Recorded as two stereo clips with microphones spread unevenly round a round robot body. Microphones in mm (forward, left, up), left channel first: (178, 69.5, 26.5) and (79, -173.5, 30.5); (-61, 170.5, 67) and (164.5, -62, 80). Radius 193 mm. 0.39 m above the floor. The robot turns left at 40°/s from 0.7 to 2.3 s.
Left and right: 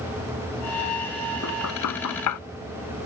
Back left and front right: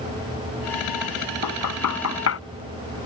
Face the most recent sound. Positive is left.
turn(degrees=85)